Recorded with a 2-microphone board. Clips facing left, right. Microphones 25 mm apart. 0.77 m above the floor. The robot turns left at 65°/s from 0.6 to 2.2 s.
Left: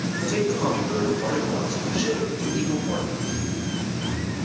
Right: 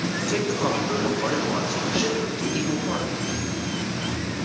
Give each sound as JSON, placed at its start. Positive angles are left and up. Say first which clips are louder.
{"t": 0.2, "sound": "a man speaking", "louder": "left 2 dB", "azimuth_deg": -10, "distance_m": 6.5}